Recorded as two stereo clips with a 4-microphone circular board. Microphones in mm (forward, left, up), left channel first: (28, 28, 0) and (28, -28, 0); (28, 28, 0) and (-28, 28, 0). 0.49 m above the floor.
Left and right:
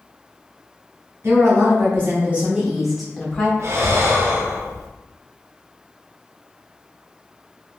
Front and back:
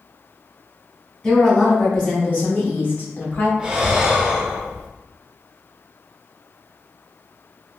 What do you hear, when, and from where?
1.2 s a woman speaking: 70° right, 1.5 m; by 3.5 s 25° left, 1.1 m
3.6 s breathing: 110° right, 0.5 m